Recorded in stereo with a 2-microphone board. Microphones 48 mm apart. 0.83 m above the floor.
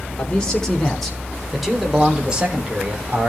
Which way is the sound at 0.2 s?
20° left (ahead or behind).